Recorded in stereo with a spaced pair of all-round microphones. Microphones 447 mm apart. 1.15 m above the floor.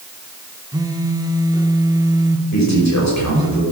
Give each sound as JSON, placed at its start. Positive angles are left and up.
{"t": 0.7, "sound": "a phone buzzing", "side_deg": -10, "distance_m": 0.7}
{"t": 2.5, "sound": "a man speaking", "side_deg": 40, "distance_m": 6.0}